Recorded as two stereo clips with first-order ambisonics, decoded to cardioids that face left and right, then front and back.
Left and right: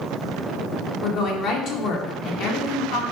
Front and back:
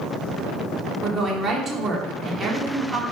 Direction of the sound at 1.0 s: 120° left.